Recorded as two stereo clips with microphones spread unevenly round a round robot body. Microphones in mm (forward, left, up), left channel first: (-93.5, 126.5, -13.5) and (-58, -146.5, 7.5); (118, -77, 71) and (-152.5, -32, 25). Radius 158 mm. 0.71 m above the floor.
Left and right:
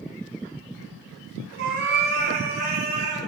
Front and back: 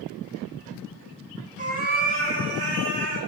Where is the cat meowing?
125° right, 2 m; by 3.2 s 140° right, 4.5 m.